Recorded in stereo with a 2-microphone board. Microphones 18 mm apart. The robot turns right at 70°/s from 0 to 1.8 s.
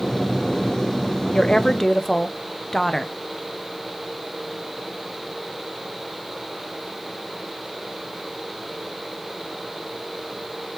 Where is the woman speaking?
115° left, 0.6 m; by 3.1 s 150° left, 0.6 m.